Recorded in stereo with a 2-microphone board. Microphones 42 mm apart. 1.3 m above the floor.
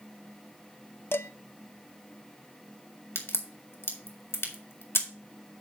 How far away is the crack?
About 1.9 m.